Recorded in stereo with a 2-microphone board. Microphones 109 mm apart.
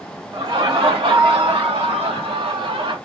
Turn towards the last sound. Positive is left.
turn(degrees=-40)  # may be behind; listen again after turning